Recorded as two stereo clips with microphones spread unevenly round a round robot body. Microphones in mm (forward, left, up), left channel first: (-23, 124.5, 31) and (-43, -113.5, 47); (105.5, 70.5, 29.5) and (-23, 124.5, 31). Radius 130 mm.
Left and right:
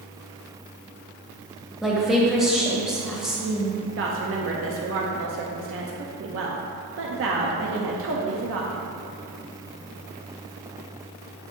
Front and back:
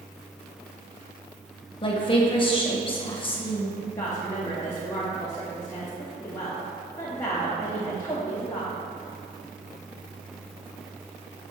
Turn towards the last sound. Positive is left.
turn(degrees=-90)